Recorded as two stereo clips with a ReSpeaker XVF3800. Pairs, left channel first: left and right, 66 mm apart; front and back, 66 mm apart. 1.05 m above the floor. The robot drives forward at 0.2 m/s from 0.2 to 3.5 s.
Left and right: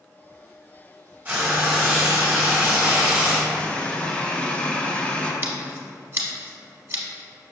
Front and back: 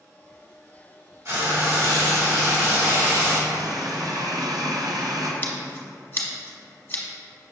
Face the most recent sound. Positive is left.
turn(degrees=-50)